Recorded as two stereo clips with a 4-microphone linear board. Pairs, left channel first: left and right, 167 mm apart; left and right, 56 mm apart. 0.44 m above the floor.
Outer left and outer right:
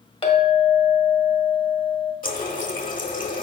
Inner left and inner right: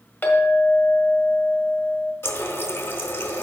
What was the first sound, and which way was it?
A clink, 35° left (ahead or behind).